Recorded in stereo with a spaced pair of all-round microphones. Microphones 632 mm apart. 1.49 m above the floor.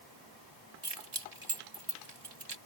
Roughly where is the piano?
No piano in this recording.